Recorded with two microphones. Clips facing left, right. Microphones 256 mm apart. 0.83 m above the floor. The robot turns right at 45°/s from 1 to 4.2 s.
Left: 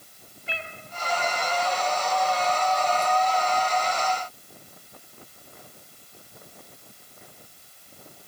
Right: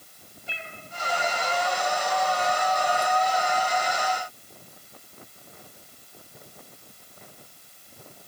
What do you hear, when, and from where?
0.5 s a cat meowing: 70° left (ahead or behind), 2 m